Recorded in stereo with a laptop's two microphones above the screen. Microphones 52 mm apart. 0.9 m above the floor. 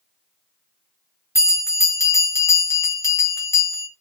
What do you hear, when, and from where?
1.4 s a bell: 55° left (ahead or behind), 0.9 m